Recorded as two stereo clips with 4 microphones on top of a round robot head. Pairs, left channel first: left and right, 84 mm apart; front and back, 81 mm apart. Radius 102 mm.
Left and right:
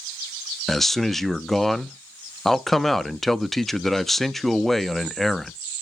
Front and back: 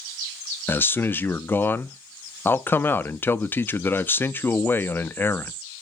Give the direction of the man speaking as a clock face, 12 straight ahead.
12 o'clock.